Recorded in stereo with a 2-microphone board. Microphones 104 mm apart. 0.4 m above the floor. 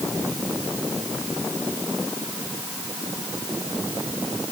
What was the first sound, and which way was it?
Only background noise.